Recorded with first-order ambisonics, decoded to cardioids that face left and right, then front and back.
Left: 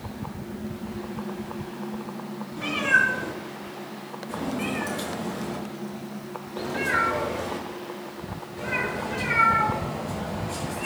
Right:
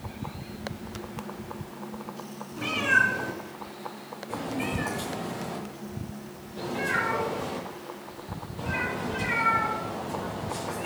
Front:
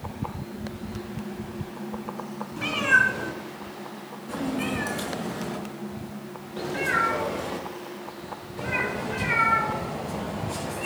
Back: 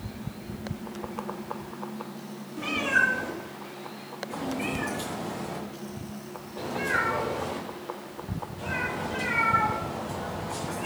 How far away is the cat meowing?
About 5 m.